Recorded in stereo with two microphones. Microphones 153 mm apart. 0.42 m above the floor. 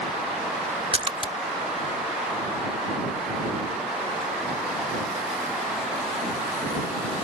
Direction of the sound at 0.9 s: 35° right (ahead or behind).